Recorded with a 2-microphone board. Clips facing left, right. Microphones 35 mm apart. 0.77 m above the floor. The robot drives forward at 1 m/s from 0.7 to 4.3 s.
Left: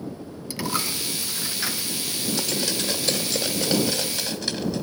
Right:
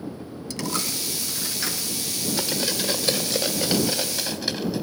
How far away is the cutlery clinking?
About 1.6 m.